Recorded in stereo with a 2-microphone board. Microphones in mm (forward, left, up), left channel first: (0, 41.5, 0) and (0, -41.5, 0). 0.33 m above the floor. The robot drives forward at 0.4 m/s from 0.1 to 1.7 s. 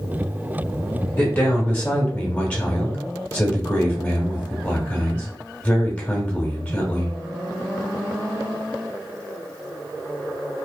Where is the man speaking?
20° left (ahead or behind), 0.8 m.